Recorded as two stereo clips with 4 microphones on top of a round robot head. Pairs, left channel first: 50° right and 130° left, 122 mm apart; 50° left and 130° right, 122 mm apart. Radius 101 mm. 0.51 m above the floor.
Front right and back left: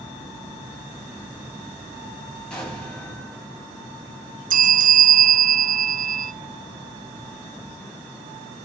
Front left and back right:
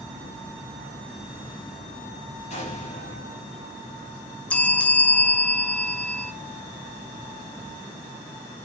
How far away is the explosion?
About 5.5 m.